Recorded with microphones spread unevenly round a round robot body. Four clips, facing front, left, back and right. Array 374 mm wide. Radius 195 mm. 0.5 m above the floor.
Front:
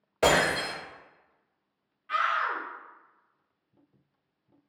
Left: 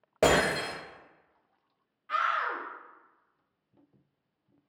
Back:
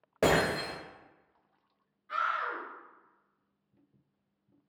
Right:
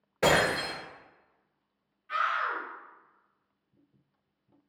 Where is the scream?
90° left, 0.9 m.